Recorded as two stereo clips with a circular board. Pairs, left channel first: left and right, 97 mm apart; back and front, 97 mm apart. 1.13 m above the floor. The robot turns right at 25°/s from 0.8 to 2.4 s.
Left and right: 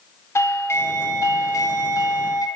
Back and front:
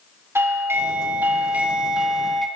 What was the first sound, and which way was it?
A doorbell, 50° left.